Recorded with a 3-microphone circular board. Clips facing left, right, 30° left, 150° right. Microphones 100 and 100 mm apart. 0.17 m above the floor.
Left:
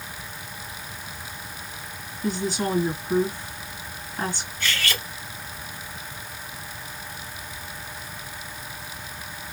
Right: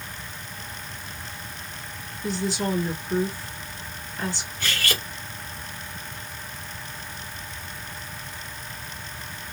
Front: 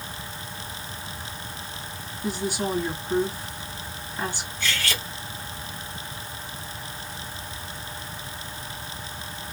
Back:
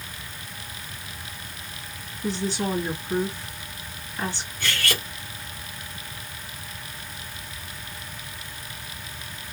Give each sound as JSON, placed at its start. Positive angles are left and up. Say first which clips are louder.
{"t": 2.2, "sound": "a woman speaking", "louder": "left 1 dB, back 1 dB", "azimuth_deg": 100, "distance_m": 2.0}
{"t": 4.6, "sound": "cutlery clinking", "louder": "left 1 dB, back 1 dB", "azimuth_deg": -130, "distance_m": 1.6}